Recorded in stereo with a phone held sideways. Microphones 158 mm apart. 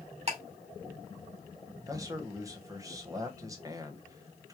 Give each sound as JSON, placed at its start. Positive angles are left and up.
{"t": 0.3, "sound": "ticking", "side_deg": -40, "distance_m": 2.0}
{"t": 1.9, "sound": "a man speaking", "side_deg": -20, "distance_m": 1.0}